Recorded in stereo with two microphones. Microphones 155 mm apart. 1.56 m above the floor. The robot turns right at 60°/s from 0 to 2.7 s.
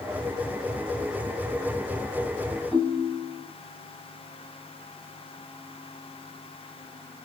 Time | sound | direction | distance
2.7 | a ringtone | 5° right (ahead or behind) | 4.5 m